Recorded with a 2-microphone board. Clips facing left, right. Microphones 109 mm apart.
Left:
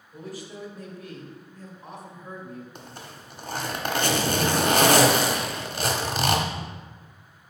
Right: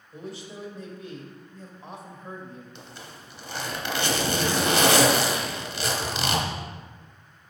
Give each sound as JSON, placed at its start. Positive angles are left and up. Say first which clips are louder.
{"t": 0.1, "sound": "a man speaking", "louder": "even", "side_deg": -25, "distance_m": 1.1}
{"t": 2.8, "sound": "a zipper", "louder": "left 2 dB", "side_deg": 40, "distance_m": 0.9}